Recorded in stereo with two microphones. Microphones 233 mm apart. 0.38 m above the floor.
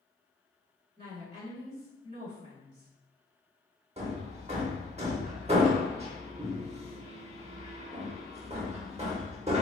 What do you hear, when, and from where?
1.0 s a woman speaking: 45° right (ahead or behind), 1.7 m
4.0 s hammering: 25° right (ahead or behind), 0.7 m